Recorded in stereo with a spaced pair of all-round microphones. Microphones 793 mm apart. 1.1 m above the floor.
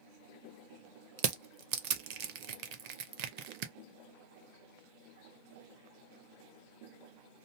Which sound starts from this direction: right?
Crushing, at 1.2 s.